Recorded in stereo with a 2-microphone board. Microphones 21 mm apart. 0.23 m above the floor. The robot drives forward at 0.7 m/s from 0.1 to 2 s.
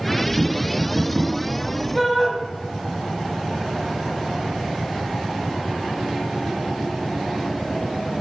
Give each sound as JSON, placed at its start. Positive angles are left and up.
{"t": 0.4, "sound": "tapping", "side_deg": -10, "distance_m": 3.5}
{"t": 1.9, "sound": "a shout", "side_deg": 15, "distance_m": 1.7}